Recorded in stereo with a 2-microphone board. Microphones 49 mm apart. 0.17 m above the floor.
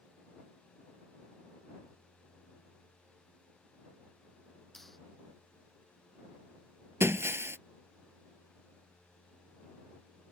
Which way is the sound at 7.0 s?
60° right (ahead or behind).